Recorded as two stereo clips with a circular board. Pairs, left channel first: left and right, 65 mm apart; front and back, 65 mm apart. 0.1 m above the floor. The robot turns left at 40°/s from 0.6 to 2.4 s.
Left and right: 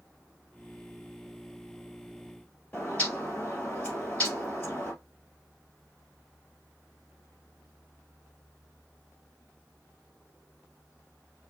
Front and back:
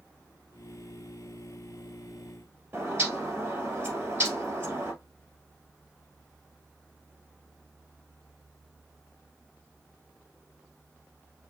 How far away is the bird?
About 2.5 m.